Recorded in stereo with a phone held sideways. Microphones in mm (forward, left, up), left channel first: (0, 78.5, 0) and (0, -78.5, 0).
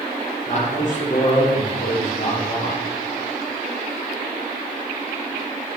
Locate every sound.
0.5 s a man speaking: 50° left (ahead or behind), 2 m